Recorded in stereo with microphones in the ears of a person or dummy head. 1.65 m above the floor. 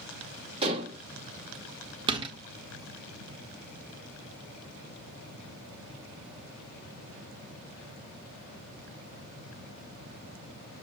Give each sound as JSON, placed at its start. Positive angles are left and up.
{"t": 0.6, "sound": "dishes clattering", "side_deg": -35, "distance_m": 2.5}
{"t": 2.1, "sound": "a door slam", "side_deg": -30, "distance_m": 1.3}